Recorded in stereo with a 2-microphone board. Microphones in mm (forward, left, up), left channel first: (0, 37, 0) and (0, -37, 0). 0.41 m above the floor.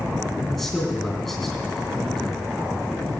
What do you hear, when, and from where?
0.5 s a man speaking: 5° left (ahead or behind), 3.5 m